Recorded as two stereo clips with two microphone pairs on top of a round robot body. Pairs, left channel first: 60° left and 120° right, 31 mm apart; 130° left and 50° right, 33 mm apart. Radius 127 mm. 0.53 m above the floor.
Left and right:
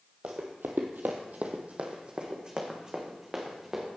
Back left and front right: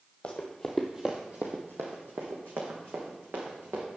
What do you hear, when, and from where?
0.2 s running footsteps: 165° right, 0.9 m; by 3.9 s 45° right, 3 m